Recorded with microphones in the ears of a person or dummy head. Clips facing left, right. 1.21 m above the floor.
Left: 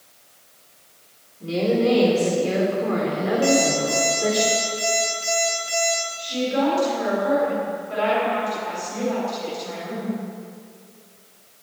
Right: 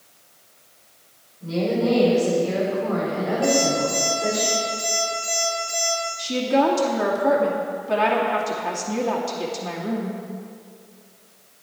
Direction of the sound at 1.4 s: 35° left (ahead or behind).